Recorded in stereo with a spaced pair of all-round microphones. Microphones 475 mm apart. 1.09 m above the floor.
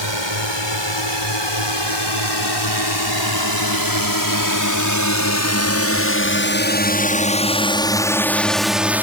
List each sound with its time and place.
0.0 s a drone: 65° left (ahead or behind); by 9.0 s 5° right (ahead or behind)